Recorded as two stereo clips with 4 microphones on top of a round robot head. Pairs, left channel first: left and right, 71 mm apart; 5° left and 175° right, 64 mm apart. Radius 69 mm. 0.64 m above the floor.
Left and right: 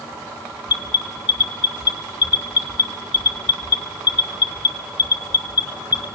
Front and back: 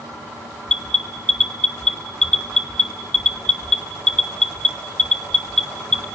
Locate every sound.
0.7 s an alarm: 80° left, 1.7 m